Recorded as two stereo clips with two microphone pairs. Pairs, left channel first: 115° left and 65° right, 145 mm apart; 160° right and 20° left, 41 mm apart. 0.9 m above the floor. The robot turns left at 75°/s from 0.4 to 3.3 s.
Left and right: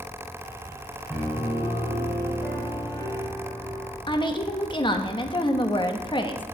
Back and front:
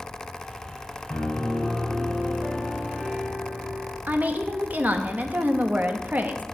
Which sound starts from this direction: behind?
A piano, at 1.1 s.